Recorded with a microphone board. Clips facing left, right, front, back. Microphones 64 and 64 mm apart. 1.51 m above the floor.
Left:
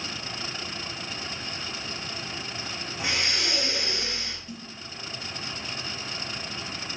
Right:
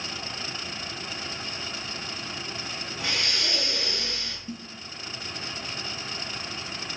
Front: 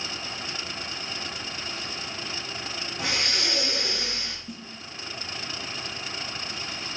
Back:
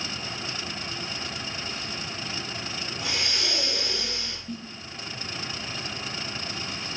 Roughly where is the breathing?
Ahead.